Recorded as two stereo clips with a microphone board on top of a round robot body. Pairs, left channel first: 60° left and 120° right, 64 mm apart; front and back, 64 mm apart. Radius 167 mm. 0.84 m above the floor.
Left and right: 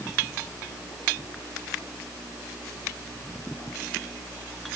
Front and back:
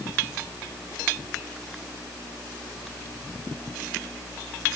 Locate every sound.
Only background noise.